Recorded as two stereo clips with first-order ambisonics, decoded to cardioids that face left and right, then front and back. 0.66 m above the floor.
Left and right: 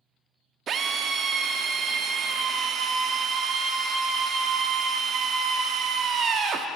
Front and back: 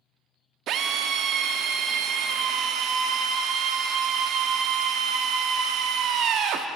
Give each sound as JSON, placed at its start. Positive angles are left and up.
{"t": 0.7, "sound": "a drill", "azimuth_deg": -140, "distance_m": 0.6}